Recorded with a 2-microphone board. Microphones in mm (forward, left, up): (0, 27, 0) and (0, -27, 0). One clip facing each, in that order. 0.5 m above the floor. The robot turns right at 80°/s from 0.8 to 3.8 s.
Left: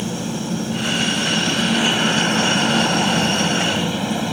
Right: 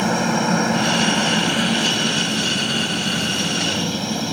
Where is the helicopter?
75° right; by 4.3 s 165° left.